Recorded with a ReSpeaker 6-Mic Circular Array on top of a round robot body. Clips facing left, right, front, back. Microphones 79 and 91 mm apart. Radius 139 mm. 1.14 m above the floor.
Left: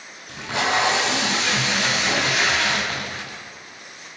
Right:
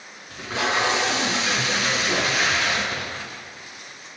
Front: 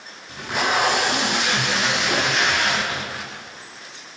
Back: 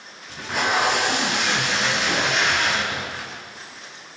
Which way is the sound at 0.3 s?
90° left.